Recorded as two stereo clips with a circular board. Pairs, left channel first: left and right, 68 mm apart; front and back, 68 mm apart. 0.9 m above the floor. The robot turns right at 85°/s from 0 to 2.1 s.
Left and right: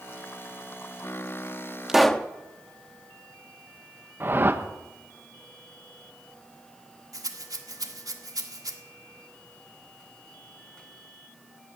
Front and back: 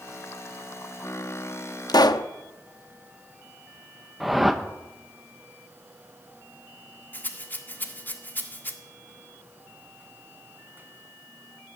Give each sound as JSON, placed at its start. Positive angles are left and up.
{"t": 1.9, "sound": "a pop", "azimuth_deg": -10, "distance_m": 0.6}
{"t": 4.2, "sound": "a whoosh", "azimuth_deg": -95, "distance_m": 0.9}
{"t": 7.1, "sound": "a rattle", "azimuth_deg": -60, "distance_m": 1.6}